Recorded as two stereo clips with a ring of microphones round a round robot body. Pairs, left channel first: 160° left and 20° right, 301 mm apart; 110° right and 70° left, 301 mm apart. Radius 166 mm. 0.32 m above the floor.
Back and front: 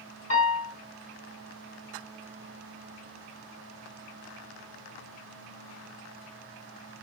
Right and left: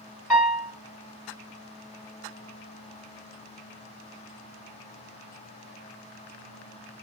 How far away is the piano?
About 1.7 m.